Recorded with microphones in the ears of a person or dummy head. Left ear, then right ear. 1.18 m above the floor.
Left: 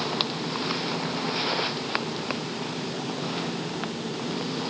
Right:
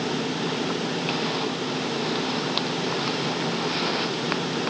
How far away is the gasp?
No gasp in this recording.